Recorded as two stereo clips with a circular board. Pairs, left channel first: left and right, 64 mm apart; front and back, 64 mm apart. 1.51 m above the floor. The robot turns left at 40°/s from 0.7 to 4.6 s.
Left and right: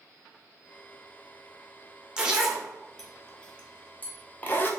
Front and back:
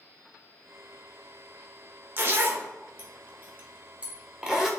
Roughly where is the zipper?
Behind.